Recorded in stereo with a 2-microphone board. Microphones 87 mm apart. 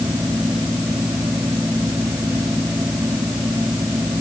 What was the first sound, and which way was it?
Only background noise.